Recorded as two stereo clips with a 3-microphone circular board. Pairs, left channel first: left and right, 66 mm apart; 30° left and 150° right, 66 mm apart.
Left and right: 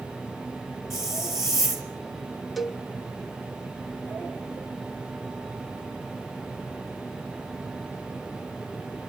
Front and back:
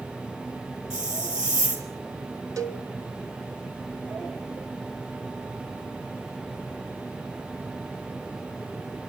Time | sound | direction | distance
0.9 | a hiss | 175° left | 4.5 m
2.6 | a cowbell | straight behind | 0.9 m